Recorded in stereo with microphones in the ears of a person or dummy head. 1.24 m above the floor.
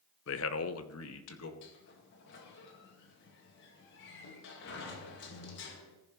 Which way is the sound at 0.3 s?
50° left (ahead or behind).